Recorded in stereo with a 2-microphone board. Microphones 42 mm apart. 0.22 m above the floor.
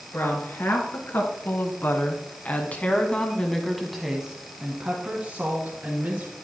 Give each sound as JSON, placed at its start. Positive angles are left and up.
{"t": 0.1, "sound": "a woman speaking", "side_deg": 70, "distance_m": 3.0}